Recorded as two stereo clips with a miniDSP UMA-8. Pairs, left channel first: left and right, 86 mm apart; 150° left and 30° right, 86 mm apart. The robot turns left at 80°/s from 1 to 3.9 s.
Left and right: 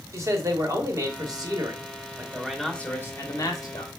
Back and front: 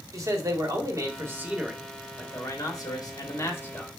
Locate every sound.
0.1 s a man speaking: 55° right, 1.2 m; by 3.9 s 75° left, 1.2 m